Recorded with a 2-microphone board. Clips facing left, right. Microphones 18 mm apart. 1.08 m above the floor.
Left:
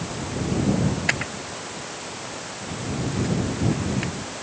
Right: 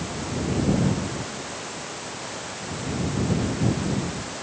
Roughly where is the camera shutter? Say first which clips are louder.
Left 6 dB; left.